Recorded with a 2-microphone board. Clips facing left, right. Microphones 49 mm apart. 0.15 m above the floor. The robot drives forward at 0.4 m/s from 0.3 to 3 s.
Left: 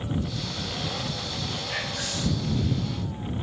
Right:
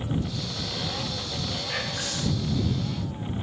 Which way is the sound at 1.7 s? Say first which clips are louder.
Left 1 dB; 20° right (ahead or behind).